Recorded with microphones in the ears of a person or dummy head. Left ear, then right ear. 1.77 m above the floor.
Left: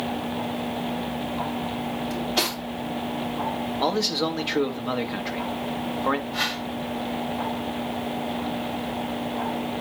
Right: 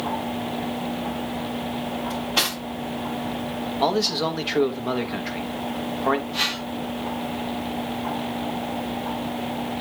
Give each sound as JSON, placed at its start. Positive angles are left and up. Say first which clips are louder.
{"t": 2.1, "sound": "cutlery clinking", "louder": "right 2 dB", "side_deg": -35, "distance_m": 3.5}
{"t": 3.8, "sound": "a man speaking", "louder": "right 2 dB", "side_deg": 0, "distance_m": 0.8}
{"t": 6.3, "sound": "a whoosh", "louder": "right 2 dB", "side_deg": -15, "distance_m": 6.0}